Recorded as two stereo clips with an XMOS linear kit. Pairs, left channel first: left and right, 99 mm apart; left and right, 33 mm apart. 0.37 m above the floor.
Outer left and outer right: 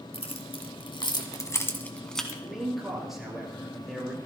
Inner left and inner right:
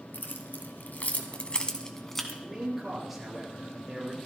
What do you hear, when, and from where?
0.1 s keys jangling: 80° left, 2.5 m; by 2.3 s 5° left (ahead or behind), 2 m
2.4 s a man speaking: 5° right (ahead or behind), 6.5 m